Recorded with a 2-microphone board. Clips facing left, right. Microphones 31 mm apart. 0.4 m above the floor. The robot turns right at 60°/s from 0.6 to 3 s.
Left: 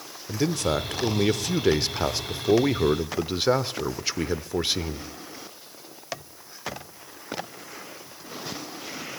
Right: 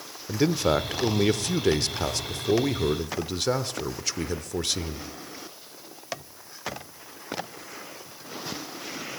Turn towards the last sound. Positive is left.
turn(degrees=20)  # may be behind; listen again after turning